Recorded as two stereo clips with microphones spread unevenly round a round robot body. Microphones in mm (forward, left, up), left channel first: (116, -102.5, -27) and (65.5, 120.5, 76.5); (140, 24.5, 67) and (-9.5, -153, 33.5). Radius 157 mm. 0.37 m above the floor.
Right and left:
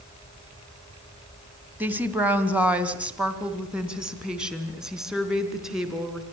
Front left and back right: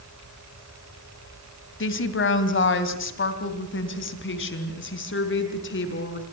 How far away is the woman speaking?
About 2.5 m.